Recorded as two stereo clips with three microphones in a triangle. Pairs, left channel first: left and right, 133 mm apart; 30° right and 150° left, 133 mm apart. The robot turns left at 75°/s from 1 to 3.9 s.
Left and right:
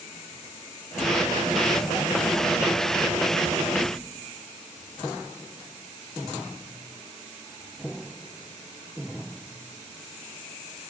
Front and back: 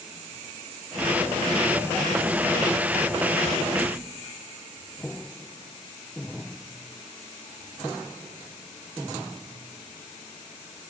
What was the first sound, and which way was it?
Only background noise.